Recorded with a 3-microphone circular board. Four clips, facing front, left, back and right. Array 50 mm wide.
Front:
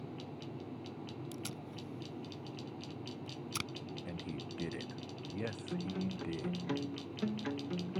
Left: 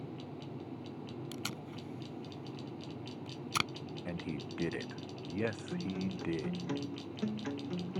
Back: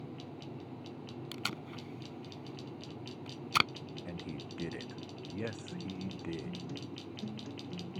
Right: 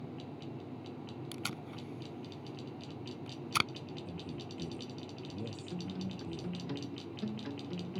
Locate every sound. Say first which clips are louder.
1.3 s tape being pulled: even, back 4 dB; 165° right
4.0 s a man speaking: left 3 dB, back 2 dB; 90° left
5.7 s a guitar: left 3 dB, front 3 dB; 25° left